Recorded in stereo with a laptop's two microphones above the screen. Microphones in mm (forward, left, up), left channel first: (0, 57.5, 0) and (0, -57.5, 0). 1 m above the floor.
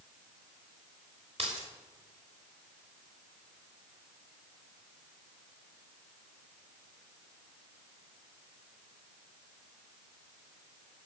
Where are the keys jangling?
55° right (ahead or behind), 3 m.